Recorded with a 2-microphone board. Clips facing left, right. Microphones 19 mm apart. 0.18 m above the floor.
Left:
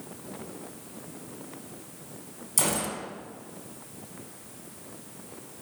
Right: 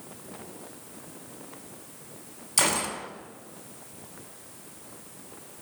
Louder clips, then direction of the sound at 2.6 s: Right 3 dB; 35° right (ahead or behind).